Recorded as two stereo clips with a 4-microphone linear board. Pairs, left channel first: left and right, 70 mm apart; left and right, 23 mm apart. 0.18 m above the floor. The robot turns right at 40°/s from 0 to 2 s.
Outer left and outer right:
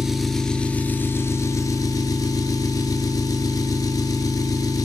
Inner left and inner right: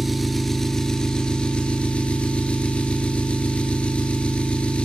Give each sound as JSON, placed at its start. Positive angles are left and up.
{"t": 0.0, "sound": "an engine running", "azimuth_deg": -5, "distance_m": 0.8}